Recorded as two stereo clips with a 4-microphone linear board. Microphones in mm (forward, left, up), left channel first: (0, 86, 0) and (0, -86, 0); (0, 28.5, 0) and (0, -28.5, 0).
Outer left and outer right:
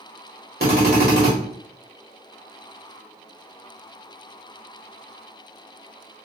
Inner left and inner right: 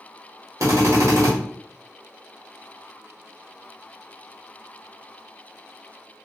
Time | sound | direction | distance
0.6 | a drill | 70° right (ahead or behind) | 1.5 m